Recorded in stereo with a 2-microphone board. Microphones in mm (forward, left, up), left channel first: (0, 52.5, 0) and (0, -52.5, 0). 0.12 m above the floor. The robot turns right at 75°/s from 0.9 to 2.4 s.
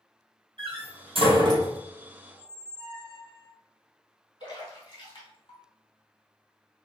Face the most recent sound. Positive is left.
turn(degrees=50)  # may be behind; listen again after turning